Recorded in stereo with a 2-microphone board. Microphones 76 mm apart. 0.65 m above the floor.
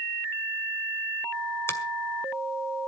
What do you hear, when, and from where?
1.7 s a finger snap: 35° left (ahead or behind), 2.0 m